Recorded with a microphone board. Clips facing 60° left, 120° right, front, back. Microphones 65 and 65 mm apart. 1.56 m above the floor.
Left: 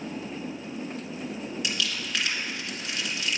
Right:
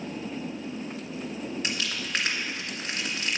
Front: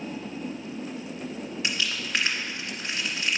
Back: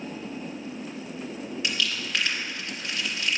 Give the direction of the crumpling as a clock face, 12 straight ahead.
2 o'clock.